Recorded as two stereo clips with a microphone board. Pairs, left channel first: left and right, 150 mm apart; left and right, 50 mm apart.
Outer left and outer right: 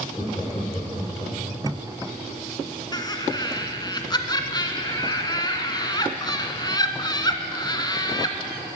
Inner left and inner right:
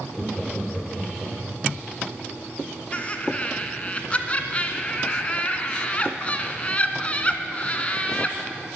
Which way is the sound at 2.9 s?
30° left (ahead or behind).